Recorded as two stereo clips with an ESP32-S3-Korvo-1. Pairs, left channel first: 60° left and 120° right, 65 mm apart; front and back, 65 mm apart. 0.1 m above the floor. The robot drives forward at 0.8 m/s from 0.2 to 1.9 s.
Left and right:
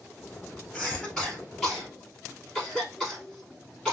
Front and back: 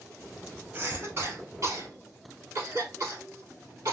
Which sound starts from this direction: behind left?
A cough, at 0.7 s.